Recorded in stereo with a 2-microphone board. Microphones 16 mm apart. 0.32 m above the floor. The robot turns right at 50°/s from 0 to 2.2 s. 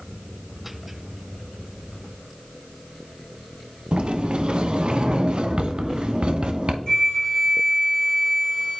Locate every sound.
3.9 s a sliding door: 85° right, 0.5 m
6.9 s a flute: 40° left (ahead or behind), 3 m